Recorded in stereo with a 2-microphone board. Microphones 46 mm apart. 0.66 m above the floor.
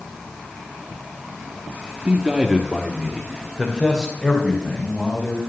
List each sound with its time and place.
2.0 s a man speaking: 30° right (ahead or behind), 1.1 m; by 5.4 s 30° left (ahead or behind), 4.5 m